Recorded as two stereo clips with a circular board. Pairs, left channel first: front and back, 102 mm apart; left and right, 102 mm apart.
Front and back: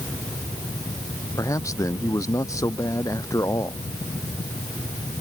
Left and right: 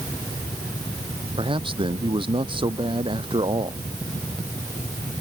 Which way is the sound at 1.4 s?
60° right.